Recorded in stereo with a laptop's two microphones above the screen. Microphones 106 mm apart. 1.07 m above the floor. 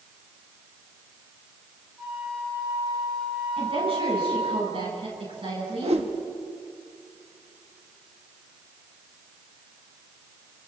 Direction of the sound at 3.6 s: 60° right (ahead or behind).